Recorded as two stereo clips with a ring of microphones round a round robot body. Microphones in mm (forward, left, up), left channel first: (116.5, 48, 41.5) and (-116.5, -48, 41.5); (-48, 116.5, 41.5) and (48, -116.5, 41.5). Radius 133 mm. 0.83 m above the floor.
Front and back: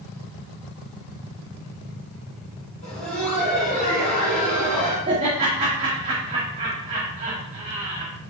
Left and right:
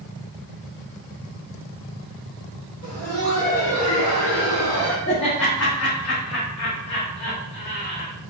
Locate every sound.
2.8 s laughter: 85° left, 3.5 m
5.1 s laughter: 135° left, 1.8 m